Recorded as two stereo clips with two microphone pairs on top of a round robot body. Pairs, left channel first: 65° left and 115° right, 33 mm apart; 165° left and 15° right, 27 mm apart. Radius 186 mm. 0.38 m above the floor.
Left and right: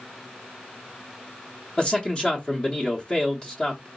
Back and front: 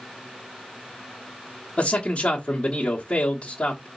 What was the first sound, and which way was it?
A man speaking, 115° left.